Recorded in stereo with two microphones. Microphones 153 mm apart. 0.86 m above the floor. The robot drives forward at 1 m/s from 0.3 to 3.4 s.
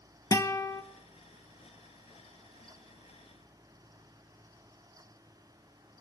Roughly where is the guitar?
Left.